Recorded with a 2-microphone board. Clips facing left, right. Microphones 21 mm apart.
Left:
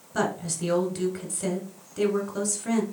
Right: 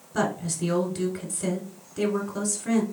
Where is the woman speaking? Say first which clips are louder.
Right 1 dB; centre (ahead or behind), 1.1 m.